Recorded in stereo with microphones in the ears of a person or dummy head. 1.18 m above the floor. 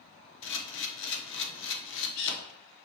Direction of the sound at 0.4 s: 55° left (ahead or behind).